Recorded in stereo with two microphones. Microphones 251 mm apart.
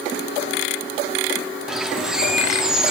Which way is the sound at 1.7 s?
Centre (ahead or behind).